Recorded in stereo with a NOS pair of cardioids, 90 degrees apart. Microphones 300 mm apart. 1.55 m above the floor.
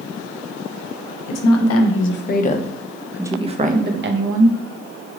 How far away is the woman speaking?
About 1.1 m.